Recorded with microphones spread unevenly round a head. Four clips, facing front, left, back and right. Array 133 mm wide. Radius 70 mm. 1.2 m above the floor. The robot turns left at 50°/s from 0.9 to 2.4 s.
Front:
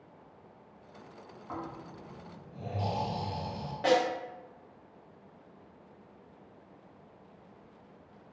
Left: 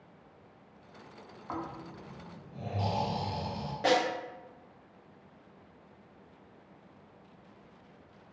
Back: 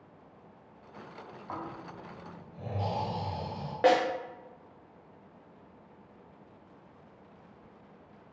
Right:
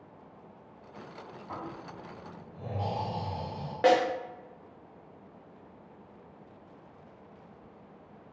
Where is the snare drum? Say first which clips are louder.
Right 4 dB, back 2 dB; 130° right, 0.9 m.